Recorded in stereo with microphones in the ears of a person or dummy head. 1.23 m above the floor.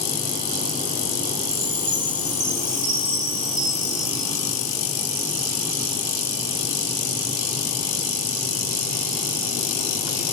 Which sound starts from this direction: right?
A chime, at 1.5 s.